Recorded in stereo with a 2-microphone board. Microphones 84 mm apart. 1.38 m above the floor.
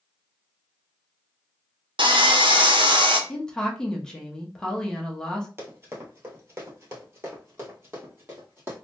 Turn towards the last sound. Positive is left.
turn(degrees=-25)  # may be behind; listen again after turning